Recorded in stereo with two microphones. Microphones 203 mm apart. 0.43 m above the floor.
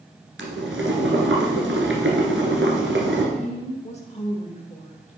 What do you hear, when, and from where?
0.4 s boiling: 85° right, 1.6 m
3.4 s a woman speaking: 35° left (ahead or behind), 1.2 m